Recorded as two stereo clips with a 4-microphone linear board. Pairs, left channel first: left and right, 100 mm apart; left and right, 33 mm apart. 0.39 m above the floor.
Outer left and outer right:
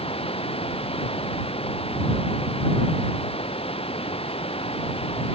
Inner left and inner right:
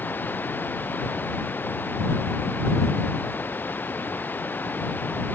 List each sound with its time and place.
0.0 s running water: 60° left (ahead or behind)